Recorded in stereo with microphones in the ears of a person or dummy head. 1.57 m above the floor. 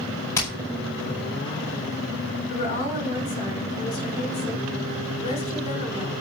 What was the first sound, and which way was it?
Hammering, 15° left (ahead or behind).